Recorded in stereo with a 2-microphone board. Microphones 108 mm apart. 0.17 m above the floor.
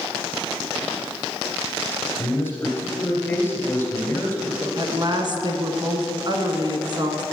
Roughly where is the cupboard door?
I don't hear a cupboard door.